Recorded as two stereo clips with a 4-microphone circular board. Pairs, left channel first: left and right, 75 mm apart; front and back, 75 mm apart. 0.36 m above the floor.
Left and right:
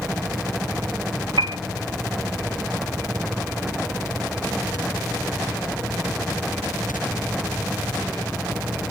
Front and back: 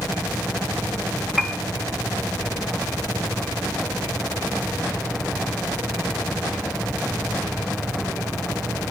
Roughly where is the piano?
Right.